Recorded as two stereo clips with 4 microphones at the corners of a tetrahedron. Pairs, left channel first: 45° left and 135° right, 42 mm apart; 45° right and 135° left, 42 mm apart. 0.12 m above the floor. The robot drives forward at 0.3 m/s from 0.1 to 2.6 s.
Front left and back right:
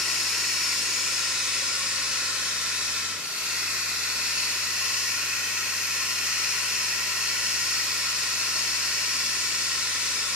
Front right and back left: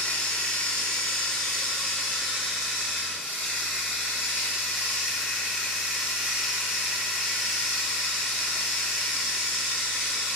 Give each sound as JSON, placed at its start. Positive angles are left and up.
{"t": 0.0, "sound": "running water", "azimuth_deg": -35, "distance_m": 0.9}